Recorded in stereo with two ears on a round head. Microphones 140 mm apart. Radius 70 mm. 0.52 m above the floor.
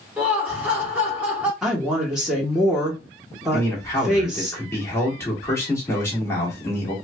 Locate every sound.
0.2 s laughter: 10° right (ahead or behind), 1.2 m
1.6 s a woman speaking: 5° right (ahead or behind), 1.1 m
3.5 s a man speaking: 20° left (ahead or behind), 1.4 m